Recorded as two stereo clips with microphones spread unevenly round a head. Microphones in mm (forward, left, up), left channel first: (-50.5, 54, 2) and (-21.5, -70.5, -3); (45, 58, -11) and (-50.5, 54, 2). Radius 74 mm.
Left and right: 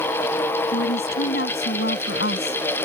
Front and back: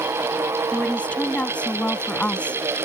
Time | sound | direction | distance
0.7 | a woman speaking | 80° left | ?